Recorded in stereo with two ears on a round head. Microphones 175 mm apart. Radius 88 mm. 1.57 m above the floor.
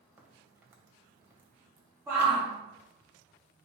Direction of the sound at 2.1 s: 15° right (ahead or behind).